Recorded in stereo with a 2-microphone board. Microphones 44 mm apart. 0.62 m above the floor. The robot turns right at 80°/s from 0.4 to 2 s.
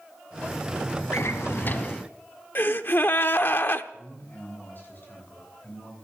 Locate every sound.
1.1 s a drawer: 85° left, 1.4 m; by 2.0 s 160° left, 1.4 m
2.5 s a gasp: 50° left (ahead or behind), 0.8 m
3.9 s a man speaking: 40° left (ahead or behind), 7.5 m